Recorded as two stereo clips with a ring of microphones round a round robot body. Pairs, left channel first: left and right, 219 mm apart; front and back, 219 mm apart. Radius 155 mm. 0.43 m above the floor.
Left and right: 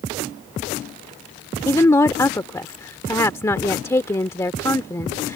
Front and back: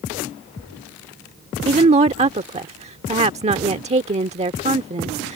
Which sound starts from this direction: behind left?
A woman speaking, at 1.6 s.